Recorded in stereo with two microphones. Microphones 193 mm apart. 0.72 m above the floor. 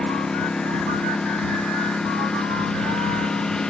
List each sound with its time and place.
0.0 s a lawn mower: 5° left (ahead or behind)